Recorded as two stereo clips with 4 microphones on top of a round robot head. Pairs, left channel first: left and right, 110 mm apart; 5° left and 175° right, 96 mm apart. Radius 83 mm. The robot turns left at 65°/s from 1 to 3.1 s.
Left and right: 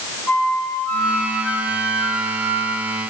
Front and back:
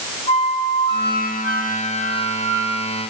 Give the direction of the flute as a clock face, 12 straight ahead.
11 o'clock.